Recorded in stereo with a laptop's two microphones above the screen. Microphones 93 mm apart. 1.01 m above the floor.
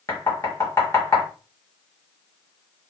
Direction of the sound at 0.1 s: 35° left (ahead or behind).